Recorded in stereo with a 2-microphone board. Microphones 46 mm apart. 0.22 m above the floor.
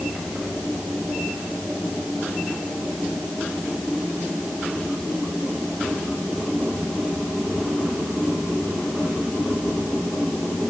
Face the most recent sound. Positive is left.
No sound to turn to.